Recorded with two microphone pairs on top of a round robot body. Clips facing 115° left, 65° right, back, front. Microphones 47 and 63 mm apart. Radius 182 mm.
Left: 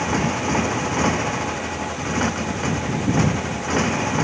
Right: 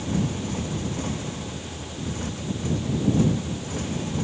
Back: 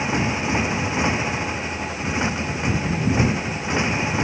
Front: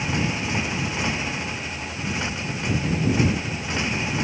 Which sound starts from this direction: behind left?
A motorcycle, at 0.0 s.